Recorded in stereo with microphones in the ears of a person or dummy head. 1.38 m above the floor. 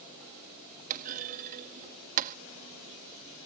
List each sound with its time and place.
0.9 s a clunk: 40° right (ahead or behind)